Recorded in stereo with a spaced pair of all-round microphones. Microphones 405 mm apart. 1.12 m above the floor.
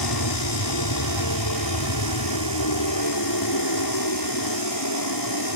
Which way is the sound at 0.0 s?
60° left (ahead or behind).